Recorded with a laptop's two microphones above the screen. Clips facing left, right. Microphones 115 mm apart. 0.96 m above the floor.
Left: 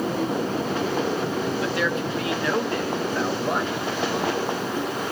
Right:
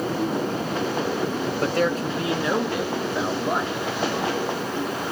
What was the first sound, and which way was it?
A man speaking, 55° right (ahead or behind).